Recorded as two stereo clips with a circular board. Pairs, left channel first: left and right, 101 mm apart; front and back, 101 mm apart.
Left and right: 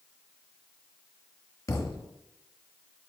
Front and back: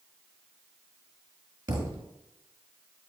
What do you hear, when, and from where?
1.7 s a thud: 145° left, 1.1 m